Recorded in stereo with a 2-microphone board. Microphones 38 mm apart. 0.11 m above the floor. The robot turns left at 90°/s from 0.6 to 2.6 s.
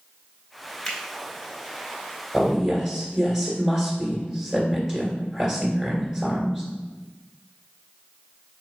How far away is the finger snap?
About 1.4 m.